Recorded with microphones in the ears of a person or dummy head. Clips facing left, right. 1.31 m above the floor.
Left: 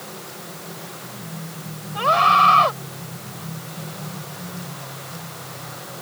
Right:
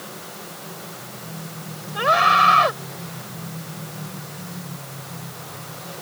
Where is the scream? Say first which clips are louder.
Left 1 dB; 20° right (ahead or behind).